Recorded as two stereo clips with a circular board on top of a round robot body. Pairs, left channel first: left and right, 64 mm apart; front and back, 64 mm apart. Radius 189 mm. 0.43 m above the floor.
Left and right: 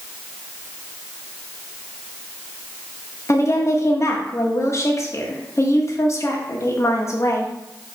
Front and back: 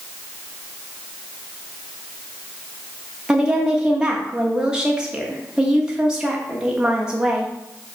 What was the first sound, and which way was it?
A woman speaking, 105° left.